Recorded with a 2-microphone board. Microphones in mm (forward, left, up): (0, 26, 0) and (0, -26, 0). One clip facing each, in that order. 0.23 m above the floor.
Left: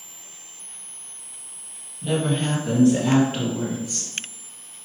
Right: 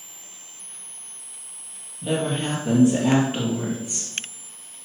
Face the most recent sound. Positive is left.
turn(degrees=-15)  # may be behind; listen again after turning